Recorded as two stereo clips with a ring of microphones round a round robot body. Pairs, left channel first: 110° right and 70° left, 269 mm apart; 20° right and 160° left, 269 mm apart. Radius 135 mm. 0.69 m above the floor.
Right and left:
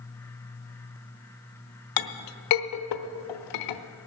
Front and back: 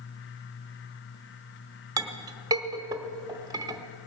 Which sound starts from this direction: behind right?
A clink, at 2.0 s.